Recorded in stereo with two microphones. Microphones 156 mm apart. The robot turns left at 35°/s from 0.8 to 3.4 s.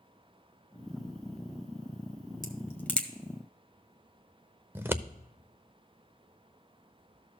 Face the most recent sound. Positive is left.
turn(degrees=-15)  # may be behind; listen again after turning